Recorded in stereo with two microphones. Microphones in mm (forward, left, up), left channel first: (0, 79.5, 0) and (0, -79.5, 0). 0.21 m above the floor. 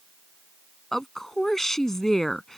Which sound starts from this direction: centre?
A woman speaking, at 0.9 s.